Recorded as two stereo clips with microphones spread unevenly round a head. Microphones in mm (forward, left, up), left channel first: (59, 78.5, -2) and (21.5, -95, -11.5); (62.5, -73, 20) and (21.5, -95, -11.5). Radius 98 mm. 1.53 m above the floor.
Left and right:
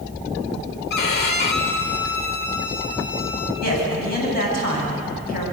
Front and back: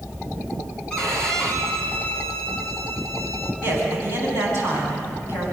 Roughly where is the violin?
Left.